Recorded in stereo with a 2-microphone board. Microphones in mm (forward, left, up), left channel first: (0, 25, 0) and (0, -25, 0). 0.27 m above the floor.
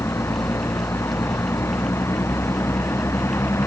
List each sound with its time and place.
0.0 s a vehicle: 60° left (ahead or behind)